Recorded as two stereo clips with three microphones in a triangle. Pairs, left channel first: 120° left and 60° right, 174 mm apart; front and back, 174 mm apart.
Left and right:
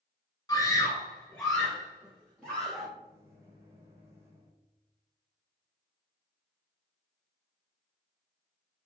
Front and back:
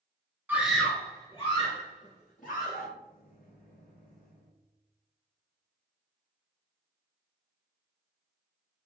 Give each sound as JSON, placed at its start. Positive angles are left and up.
{"t": 0.5, "sound": "a scream", "azimuth_deg": 120, "distance_m": 1.3}
{"t": 3.0, "sound": "a microwave", "azimuth_deg": 10, "distance_m": 1.6}